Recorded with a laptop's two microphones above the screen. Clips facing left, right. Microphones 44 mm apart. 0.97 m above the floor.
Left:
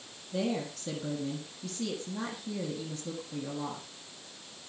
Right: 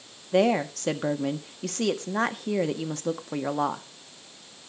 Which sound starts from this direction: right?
A woman speaking, at 0.3 s.